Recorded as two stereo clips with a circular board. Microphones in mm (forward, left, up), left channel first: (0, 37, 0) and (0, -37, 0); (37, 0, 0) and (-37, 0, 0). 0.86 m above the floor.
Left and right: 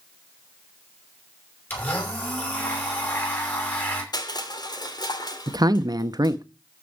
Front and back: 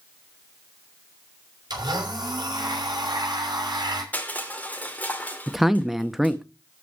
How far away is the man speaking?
About 0.9 m.